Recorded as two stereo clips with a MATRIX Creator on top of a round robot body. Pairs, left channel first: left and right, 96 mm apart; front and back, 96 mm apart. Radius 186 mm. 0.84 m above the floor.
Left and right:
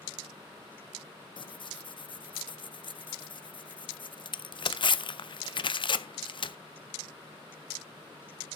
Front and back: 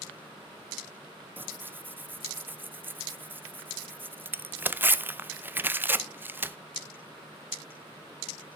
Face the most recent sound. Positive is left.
turn(degrees=110)